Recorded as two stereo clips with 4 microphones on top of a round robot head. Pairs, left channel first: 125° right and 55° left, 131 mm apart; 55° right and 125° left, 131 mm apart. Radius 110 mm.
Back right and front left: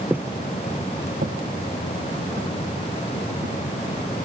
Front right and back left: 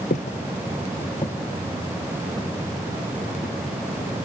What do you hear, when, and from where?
0.1 s footsteps: 25° right, 0.7 m; by 3.6 s 40° left, 2.5 m